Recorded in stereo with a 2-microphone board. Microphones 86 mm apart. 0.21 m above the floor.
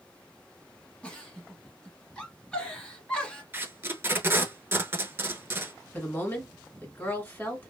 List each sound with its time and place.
1.0 s a giggle: 15° left (ahead or behind), 1.1 m
3.5 s tape being pulled: 30° right (ahead or behind), 0.5 m
5.9 s a woman speaking: 25° left (ahead or behind), 1.7 m